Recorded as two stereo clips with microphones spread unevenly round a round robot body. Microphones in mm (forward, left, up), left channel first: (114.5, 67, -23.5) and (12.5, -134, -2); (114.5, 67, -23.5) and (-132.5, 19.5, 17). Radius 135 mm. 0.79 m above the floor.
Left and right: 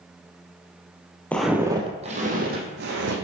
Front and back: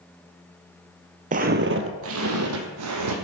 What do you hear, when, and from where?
1.3 s footsteps: 150° left, 1.1 m; by 3.1 s 160° right, 2.5 m